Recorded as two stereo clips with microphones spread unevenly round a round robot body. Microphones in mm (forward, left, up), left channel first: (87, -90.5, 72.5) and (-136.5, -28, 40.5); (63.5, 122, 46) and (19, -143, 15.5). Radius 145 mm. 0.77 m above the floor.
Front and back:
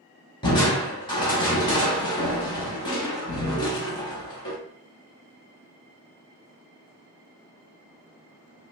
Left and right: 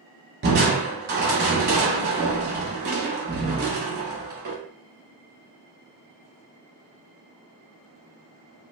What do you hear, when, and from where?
0.4 s crushing: 65° right, 0.7 m